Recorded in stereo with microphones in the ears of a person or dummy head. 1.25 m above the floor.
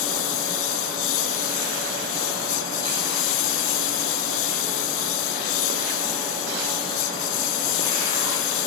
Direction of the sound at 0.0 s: 75° left (ahead or behind).